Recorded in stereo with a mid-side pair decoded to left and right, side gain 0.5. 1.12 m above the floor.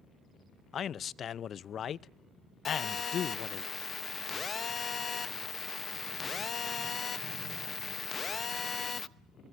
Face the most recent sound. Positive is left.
turn(degrees=35)